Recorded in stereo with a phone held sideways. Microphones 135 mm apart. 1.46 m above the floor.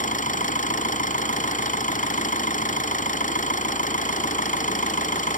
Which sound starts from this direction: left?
An engine running, at 0.0 s.